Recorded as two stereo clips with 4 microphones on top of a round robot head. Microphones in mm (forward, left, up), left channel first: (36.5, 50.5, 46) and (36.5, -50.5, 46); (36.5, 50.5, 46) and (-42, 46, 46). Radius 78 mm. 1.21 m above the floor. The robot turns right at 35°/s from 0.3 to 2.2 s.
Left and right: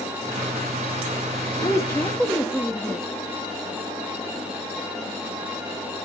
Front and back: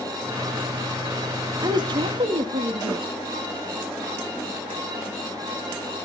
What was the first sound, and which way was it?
A woman speaking, 150° left.